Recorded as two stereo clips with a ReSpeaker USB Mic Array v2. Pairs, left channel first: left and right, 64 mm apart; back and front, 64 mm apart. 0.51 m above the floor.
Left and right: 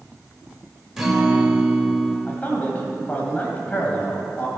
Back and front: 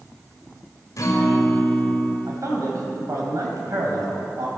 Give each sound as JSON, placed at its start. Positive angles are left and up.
{"t": 1.0, "sound": "a guitar", "azimuth_deg": -170, "distance_m": 1.9}
{"t": 2.3, "sound": "a man speaking", "azimuth_deg": 25, "distance_m": 2.5}